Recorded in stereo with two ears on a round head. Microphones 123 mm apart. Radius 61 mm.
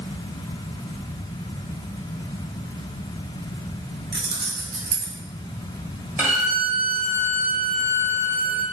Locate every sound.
4.1 s keys jangling: 35° right (ahead or behind), 1.1 m; by 5.2 s 65° right (ahead or behind), 1.5 m
6.2 s a violin: 15° right (ahead or behind), 1.4 m